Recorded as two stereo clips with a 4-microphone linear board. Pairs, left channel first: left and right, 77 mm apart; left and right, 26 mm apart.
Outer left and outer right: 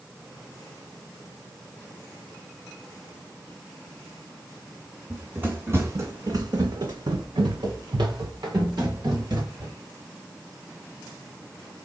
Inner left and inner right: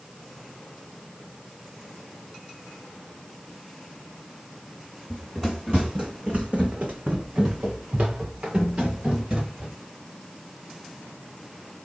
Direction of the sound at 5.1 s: 15° right (ahead or behind).